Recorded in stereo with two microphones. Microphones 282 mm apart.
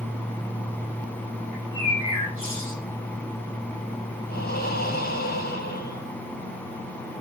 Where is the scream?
No scream in this recording.